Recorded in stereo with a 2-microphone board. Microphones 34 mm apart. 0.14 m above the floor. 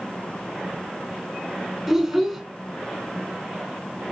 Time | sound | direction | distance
1.9 | a child speaking | 5° right (ahead or behind) | 0.9 m